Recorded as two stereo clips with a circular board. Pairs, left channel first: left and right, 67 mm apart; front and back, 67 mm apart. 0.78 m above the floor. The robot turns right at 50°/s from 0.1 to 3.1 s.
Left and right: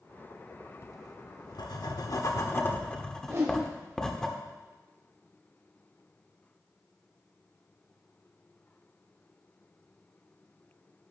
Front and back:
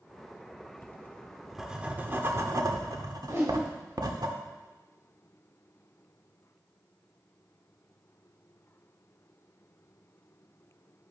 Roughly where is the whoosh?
Behind right.